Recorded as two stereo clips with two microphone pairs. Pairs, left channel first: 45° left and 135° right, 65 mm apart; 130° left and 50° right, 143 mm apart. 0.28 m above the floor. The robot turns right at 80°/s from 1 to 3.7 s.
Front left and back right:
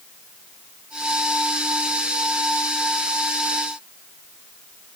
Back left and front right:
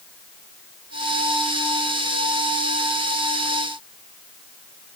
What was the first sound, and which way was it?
Only background noise.